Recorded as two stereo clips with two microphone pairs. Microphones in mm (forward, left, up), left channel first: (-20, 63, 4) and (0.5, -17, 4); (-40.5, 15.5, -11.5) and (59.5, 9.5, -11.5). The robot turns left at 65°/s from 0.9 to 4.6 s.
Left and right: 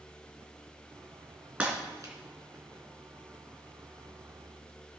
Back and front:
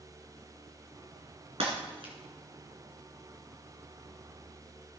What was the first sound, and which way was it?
Breaking glass, straight ahead.